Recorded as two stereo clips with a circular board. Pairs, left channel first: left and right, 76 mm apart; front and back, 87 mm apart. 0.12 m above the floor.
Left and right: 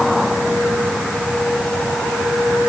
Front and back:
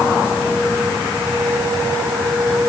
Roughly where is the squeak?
I don't hear a squeak.